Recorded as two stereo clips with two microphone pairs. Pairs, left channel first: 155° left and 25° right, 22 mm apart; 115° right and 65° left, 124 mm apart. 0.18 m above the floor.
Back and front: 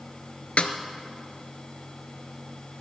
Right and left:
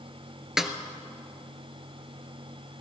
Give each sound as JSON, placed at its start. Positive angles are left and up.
{"t": 0.6, "sound": "a snare drum", "azimuth_deg": 150, "distance_m": 1.0}